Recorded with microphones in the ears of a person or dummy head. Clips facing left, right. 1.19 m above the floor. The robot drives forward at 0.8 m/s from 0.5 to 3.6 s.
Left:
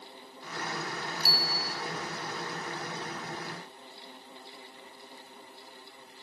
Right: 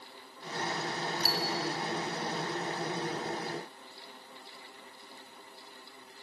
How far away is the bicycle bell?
About 2.5 m.